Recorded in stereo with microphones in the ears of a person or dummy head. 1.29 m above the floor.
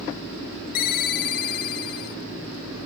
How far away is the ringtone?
About 0.9 m.